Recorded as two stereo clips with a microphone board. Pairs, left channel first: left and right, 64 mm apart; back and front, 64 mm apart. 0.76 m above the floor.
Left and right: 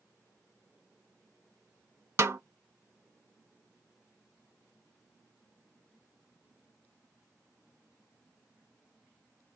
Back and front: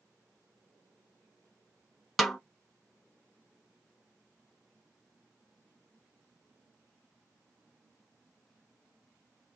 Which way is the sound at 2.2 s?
95° right.